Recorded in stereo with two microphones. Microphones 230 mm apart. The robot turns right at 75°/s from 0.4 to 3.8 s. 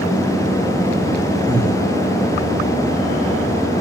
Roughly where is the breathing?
Right.